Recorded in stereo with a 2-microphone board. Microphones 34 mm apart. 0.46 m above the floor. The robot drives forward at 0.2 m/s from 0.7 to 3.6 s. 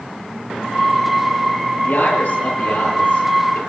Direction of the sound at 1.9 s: 70° left (ahead or behind).